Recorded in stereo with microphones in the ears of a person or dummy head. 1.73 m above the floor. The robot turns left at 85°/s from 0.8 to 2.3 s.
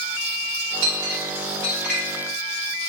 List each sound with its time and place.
0.8 s a clink: 80° right, 5 m; by 2.0 s 10° left (ahead or behind), 5 m